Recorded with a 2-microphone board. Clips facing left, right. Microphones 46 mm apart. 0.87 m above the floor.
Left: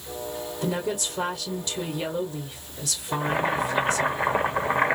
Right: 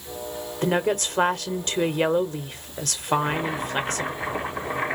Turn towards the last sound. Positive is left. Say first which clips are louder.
# right 1 dB
turn(degrees=45)  # may be behind; listen again after turning